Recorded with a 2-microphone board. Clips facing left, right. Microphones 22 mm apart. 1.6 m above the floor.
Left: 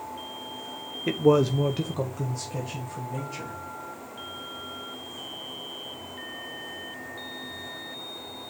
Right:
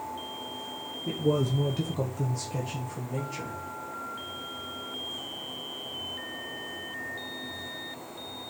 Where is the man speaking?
75° left (ahead or behind), 0.6 m; by 3.5 s 15° right (ahead or behind), 1.9 m.